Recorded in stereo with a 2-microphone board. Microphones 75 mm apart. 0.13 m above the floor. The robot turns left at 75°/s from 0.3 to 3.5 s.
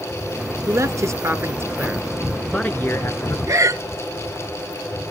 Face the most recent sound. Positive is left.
turn(degrees=-45)  # may be behind; listen again after turning